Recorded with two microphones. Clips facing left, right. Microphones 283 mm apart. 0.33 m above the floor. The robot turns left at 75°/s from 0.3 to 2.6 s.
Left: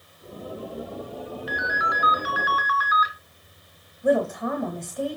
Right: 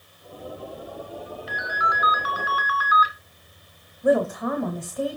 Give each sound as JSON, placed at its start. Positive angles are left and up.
{"t": 1.5, "sound": "a ringtone", "azimuth_deg": 75, "distance_m": 1.8}
{"t": 4.0, "sound": "a woman speaking", "side_deg": -5, "distance_m": 1.5}